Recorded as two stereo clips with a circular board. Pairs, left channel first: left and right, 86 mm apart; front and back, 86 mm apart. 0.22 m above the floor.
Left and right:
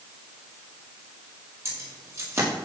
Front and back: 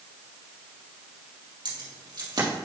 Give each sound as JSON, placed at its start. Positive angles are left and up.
{"t": 1.6, "sound": "keys jangling", "azimuth_deg": -145, "distance_m": 4.5}